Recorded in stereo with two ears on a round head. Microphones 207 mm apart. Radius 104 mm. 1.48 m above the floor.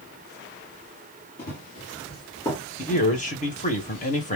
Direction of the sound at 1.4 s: 40° left (ahead or behind).